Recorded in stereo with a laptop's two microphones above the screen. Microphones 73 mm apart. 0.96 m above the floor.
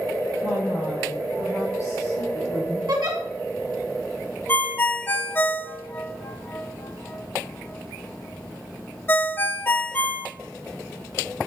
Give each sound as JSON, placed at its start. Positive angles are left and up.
{"t": 0.4, "sound": "a woman speaking", "side_deg": 20, "distance_m": 3.0}
{"t": 2.9, "sound": "a giggle", "side_deg": -60, "distance_m": 1.0}
{"t": 4.5, "sound": "a ringtone", "side_deg": 30, "distance_m": 0.6}